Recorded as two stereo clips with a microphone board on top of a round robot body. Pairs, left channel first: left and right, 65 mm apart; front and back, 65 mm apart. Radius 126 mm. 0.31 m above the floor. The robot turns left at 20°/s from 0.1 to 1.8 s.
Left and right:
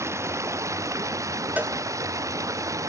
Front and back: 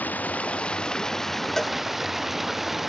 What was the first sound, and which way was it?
Running water, 60° right.